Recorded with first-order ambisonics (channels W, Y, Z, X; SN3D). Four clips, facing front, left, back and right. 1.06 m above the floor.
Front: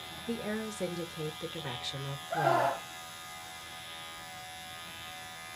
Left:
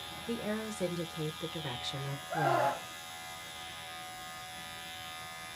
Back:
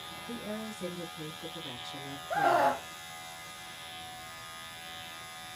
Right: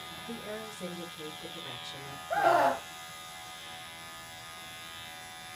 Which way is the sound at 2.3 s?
125° right.